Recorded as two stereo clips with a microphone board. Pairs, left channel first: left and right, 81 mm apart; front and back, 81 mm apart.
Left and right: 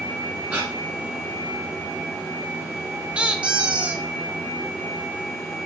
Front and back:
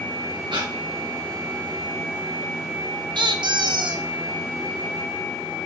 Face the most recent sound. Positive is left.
turn(degrees=-165)